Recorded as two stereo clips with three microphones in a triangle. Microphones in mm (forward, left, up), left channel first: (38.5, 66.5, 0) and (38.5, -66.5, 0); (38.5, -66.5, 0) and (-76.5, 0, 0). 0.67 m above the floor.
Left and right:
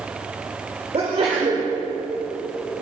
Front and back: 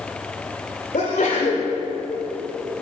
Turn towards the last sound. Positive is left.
turn(degrees=-45)